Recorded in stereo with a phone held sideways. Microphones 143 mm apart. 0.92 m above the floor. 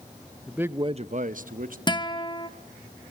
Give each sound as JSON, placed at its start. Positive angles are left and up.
{"t": 0.5, "sound": "a man speaking", "side_deg": 0, "distance_m": 0.6}
{"t": 1.9, "sound": "a guitar", "side_deg": 30, "distance_m": 1.0}